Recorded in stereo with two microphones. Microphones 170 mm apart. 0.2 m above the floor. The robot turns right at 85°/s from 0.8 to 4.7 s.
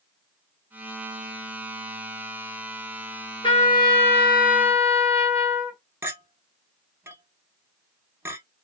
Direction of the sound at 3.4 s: 30° left.